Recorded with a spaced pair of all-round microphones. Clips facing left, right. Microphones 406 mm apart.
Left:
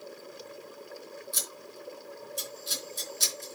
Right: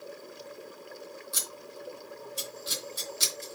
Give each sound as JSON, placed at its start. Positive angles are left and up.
{"t": 1.3, "sound": "scissors", "side_deg": -75, "distance_m": 3.5}